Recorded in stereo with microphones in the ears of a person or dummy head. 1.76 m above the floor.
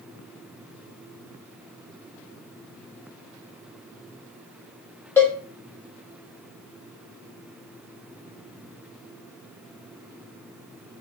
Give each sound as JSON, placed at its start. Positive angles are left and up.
{"t": 5.2, "sound": "a cowbell", "side_deg": 10, "distance_m": 0.5}